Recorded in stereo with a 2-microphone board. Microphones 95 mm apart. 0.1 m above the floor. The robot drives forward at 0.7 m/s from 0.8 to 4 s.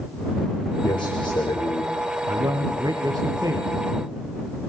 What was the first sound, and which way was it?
A man speaking, 70° left (ahead or behind).